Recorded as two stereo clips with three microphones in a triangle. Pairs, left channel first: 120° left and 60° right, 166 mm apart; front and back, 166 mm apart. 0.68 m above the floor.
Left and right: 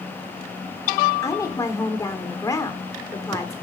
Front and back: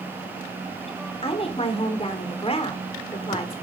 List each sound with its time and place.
1.2 s a woman speaking: 50° left, 1.6 m